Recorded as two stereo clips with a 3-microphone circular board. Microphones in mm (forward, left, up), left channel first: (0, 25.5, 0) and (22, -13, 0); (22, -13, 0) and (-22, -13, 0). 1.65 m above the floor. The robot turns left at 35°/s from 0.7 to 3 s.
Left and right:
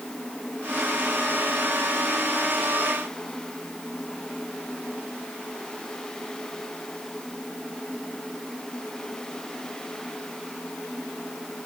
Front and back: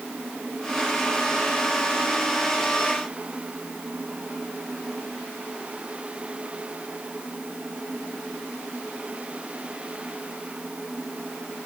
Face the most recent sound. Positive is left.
No sound to turn to.